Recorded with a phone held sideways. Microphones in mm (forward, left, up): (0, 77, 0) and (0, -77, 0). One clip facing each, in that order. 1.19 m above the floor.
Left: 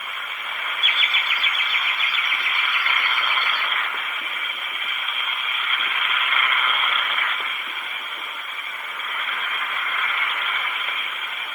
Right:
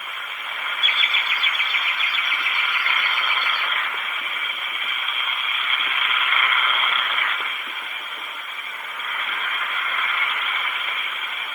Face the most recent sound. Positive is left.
turn(degrees=-20)  # may be behind; listen again after turning